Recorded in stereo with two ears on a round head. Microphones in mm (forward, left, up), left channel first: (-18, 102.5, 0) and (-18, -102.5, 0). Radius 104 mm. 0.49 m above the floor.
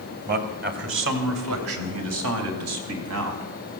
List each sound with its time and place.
0.3 s a man speaking: 40° right (ahead or behind), 2.5 m; by 3.5 s 75° right (ahead or behind), 4 m